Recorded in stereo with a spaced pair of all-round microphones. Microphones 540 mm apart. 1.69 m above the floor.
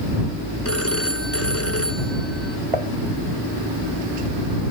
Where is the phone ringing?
25° left (ahead or behind).